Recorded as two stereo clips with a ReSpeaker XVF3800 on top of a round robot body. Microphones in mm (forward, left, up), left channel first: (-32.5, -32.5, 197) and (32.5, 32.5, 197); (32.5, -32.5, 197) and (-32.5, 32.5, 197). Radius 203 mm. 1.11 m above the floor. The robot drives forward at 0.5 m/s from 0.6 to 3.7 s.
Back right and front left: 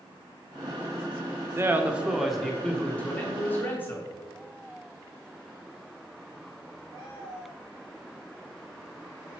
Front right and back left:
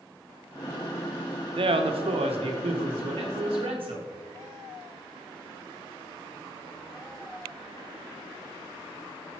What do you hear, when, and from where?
1.6 s a man speaking: 105° left, 0.6 m; by 4.0 s 155° left, 1.4 m